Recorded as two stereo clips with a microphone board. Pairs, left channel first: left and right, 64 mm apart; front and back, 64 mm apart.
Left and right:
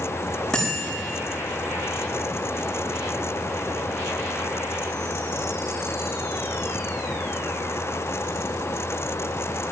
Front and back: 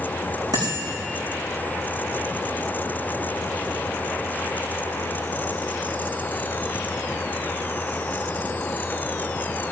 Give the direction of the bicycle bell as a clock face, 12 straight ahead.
6 o'clock.